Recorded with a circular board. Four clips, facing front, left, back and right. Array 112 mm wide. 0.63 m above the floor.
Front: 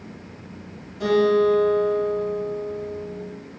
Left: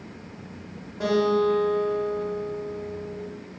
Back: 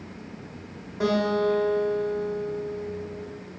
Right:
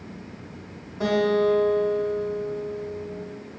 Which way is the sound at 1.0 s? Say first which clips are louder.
Even, front 6 dB; 170° left.